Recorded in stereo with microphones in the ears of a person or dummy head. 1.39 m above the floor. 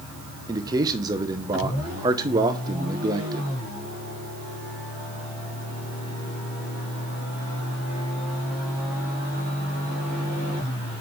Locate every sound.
0.5 s a man speaking: 15° right (ahead or behind), 0.8 m